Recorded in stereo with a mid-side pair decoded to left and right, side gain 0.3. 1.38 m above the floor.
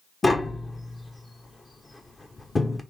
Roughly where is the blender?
I don't hear a blender.